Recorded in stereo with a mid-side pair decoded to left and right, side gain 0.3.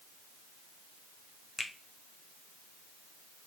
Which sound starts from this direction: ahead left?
A finger snap, at 1.6 s.